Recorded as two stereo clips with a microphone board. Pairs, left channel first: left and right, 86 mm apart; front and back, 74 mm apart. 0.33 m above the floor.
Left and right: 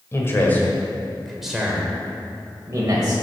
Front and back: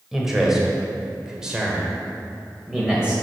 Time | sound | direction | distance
0.1 | a man speaking | 100° left | 1.7 m